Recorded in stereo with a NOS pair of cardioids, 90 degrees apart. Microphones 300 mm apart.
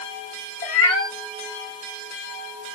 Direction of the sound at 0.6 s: 20° left.